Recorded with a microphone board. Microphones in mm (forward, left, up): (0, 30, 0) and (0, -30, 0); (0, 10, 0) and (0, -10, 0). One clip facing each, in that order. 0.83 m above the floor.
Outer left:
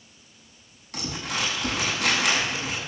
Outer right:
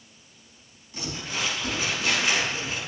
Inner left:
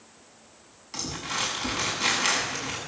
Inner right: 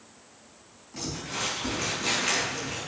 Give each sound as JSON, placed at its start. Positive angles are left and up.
{"t": 0.9, "sound": "crumpling", "side_deg": 70, "distance_m": 7.5}